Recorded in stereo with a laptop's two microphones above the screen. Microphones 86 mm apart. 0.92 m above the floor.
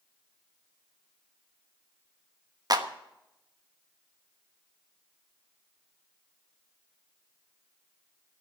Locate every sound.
2.7 s a clap: 50° right (ahead or behind), 1.1 m